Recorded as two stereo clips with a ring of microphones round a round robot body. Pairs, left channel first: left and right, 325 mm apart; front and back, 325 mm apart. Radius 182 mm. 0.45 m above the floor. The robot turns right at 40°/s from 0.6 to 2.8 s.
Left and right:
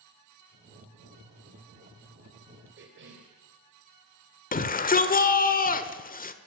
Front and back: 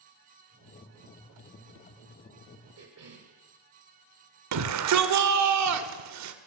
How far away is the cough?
About 2.5 m.